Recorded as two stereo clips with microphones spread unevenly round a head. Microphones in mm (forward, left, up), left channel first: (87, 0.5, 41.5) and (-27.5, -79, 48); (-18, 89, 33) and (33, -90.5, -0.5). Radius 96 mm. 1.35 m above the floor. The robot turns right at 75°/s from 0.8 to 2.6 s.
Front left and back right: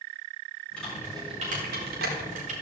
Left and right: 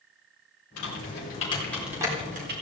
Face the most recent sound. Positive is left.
turn(degrees=-105)